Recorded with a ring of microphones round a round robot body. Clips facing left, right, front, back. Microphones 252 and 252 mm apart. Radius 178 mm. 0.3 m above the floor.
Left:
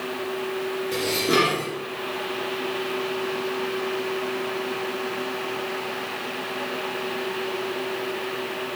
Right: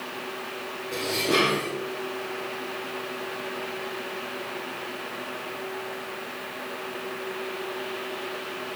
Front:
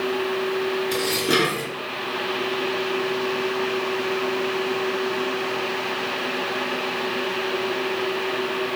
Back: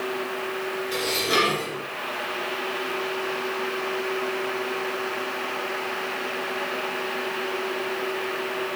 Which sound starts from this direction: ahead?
Dishes clattering, at 0.9 s.